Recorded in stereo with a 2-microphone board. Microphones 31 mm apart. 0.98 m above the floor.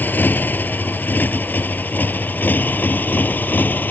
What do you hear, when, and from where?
0.0 s a motorcycle: 90° left; by 3.9 s 80° left